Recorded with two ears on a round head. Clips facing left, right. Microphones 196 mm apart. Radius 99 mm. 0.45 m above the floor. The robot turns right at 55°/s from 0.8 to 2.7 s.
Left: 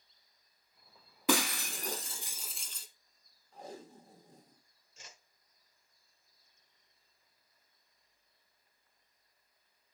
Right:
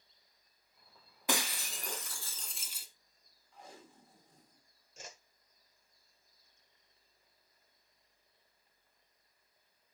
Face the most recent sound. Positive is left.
turn(degrees=-40)  # may be behind; listen again after turning